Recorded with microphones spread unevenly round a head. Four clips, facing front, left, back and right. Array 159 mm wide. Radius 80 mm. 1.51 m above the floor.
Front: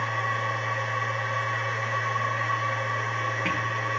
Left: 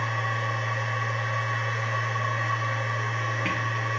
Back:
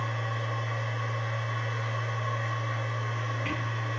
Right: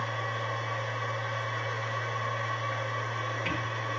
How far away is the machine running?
About 2.5 m.